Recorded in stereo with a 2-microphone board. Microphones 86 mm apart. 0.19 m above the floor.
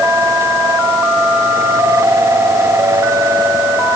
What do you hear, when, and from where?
Only background noise.